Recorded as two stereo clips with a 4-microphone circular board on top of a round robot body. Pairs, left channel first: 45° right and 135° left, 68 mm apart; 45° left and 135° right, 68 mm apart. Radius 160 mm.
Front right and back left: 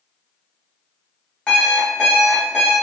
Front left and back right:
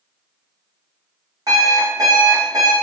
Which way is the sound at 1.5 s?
120° right.